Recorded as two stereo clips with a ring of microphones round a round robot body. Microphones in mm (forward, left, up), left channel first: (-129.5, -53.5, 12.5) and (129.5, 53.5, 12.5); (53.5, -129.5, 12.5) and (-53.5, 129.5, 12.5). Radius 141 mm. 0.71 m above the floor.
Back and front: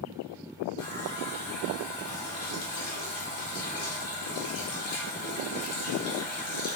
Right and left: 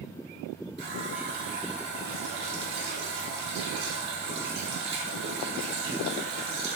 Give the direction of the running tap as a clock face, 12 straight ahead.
6 o'clock.